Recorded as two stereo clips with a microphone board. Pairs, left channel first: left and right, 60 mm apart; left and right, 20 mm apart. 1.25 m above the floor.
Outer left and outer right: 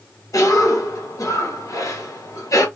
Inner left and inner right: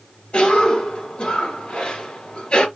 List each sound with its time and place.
0.3 s a cough: 70° left (ahead or behind), 2 m